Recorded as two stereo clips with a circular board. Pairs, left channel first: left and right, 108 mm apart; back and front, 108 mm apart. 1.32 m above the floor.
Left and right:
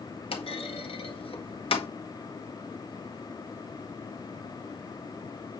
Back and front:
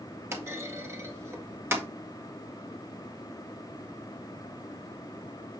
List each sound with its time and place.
0.3 s a clunk: 65° left, 1.6 m